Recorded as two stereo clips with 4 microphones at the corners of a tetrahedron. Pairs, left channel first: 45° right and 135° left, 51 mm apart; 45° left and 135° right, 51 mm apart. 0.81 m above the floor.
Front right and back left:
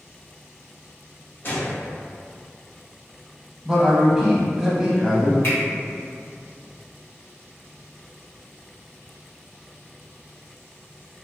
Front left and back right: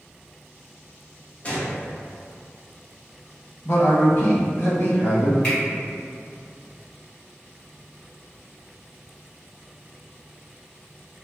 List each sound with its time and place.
1.4 s a gunshot: 10° right, 0.8 m
3.6 s a man speaking: 55° left, 0.8 m
5.4 s a finger snap: 20° right, 1.7 m